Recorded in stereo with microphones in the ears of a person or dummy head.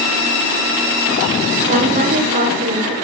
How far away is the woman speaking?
About 1.8 m.